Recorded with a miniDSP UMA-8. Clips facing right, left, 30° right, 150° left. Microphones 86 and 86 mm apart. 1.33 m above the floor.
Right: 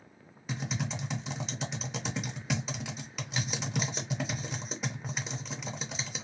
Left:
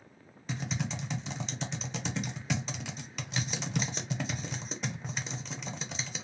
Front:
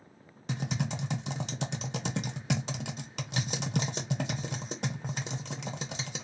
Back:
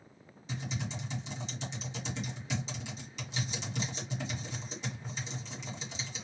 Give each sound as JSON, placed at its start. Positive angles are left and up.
{"t": 0.5, "sound": "typing on a keyboard", "azimuth_deg": -5, "distance_m": 0.7}